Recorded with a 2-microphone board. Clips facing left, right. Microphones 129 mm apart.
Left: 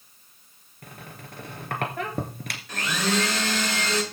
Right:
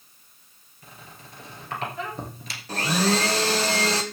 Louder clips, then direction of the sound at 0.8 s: Left 4 dB; 60° left (ahead or behind).